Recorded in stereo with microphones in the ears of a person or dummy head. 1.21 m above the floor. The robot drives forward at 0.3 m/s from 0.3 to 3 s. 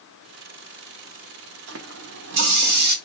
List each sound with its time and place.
1.7 s a running tap: 70° right (ahead or behind), 0.8 m; by 3.0 s 55° right (ahead or behind), 0.9 m